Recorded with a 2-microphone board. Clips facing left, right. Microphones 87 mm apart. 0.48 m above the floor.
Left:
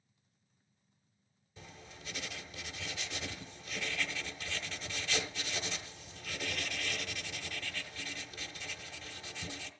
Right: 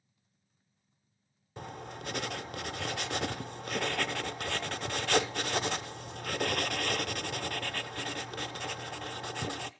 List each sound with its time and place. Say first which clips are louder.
1.6 s writing: right 11 dB; 60° right (ahead or behind), 0.6 m